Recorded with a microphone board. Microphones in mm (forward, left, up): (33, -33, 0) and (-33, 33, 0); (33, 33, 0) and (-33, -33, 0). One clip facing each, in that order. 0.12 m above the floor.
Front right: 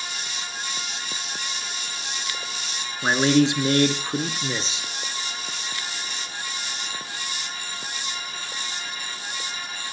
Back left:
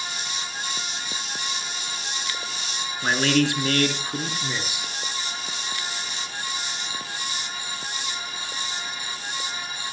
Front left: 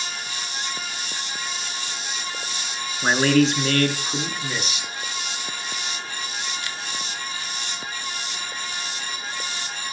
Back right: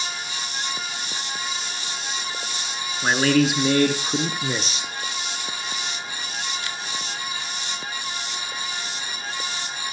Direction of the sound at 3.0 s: 20° right.